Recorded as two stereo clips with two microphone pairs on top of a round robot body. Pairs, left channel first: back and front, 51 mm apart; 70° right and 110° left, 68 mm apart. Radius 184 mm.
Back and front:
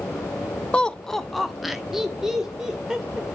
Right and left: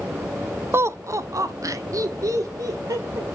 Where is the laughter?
110° left, 0.8 m; by 3.2 s 75° left, 2.5 m.